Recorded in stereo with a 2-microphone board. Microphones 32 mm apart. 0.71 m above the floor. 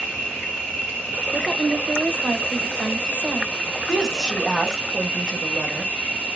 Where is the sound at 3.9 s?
15° left (ahead or behind), 1.0 m.